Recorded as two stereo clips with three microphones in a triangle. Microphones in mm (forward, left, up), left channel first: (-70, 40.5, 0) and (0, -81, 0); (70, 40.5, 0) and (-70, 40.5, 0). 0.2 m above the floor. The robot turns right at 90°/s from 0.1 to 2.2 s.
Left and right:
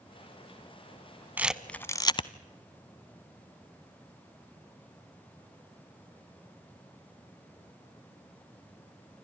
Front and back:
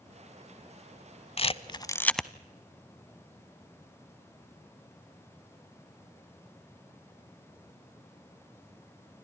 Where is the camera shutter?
10° left, 0.6 m; by 2.3 s 85° left, 0.6 m.